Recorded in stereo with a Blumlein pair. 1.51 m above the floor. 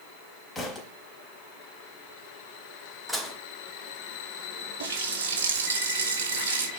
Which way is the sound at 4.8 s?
60° right.